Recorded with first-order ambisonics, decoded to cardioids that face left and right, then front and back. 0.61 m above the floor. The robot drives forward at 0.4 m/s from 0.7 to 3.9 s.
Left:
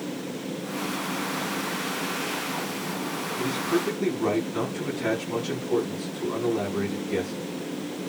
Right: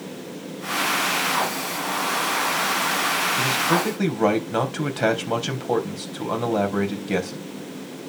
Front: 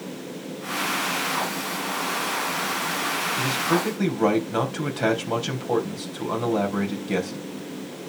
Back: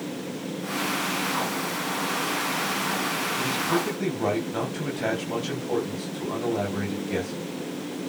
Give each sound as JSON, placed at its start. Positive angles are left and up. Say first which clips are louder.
{"t": 3.4, "sound": "a man speaking", "louder": "right 6 dB, front 2 dB", "azimuth_deg": -65, "distance_m": 3.5}